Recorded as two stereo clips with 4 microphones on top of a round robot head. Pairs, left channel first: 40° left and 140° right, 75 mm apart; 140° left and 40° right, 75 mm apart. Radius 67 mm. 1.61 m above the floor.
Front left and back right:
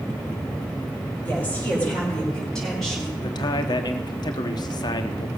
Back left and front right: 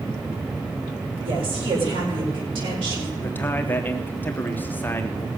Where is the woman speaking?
30° right, 6 m; by 3.1 s 50° right, 5 m.